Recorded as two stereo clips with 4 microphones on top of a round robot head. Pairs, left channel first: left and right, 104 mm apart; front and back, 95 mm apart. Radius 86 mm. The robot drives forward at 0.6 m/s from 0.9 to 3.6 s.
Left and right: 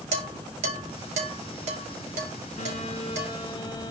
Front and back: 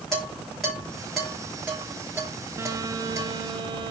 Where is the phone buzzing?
130° left, 0.8 m; by 3.9 s 155° left, 1.2 m.